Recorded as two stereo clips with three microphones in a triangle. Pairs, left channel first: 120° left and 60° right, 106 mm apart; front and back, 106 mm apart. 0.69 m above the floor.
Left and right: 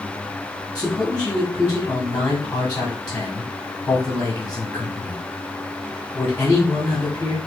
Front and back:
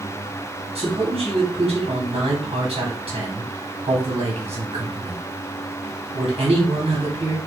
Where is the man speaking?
165° right, 1.8 m.